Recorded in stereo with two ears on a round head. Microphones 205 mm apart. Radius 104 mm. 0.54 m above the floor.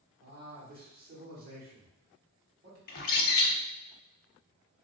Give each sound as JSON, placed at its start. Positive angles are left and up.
{"t": 0.2, "sound": "a man speaking", "side_deg": -40, "distance_m": 1.4}
{"t": 2.9, "sound": "a bird", "side_deg": 40, "distance_m": 0.6}